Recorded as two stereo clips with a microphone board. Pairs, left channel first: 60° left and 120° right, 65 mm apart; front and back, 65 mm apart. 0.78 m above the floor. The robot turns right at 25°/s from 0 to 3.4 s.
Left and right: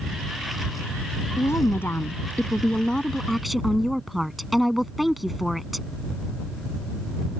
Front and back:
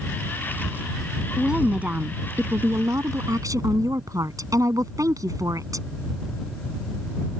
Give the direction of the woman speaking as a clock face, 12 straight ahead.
9 o'clock.